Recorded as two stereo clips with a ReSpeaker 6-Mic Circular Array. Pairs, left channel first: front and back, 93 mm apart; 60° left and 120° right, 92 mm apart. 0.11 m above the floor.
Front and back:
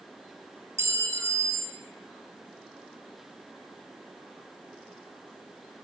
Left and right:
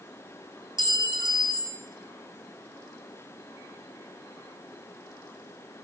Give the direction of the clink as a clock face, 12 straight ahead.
4 o'clock.